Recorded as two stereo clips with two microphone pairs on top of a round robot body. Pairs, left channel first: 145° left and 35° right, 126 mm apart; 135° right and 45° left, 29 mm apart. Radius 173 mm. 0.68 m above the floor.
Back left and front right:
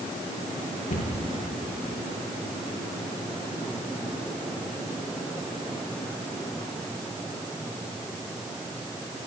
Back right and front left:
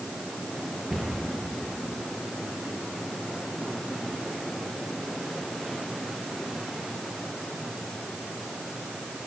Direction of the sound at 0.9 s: 115° left.